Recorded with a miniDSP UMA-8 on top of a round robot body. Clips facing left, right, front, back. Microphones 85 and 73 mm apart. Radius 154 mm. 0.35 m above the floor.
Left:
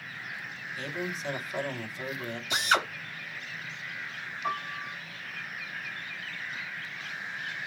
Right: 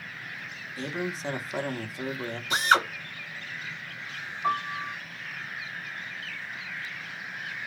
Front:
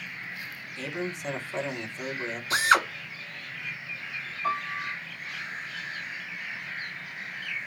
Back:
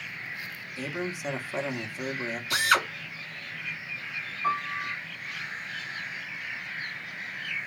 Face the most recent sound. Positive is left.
turn(degrees=-120)